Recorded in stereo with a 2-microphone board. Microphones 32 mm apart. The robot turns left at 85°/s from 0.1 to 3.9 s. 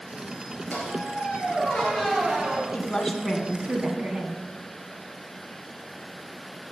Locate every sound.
0.7 s a squeak: 120° left, 2.5 m; by 2.6 s 45° right, 2.5 m
2.7 s a woman speaking: 40° left, 2.0 m; by 4.4 s 60° right, 2.0 m